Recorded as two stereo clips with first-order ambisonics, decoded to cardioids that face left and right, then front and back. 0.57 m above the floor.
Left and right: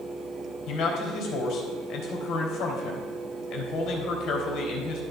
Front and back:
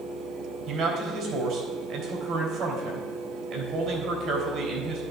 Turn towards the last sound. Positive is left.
turn(degrees=140)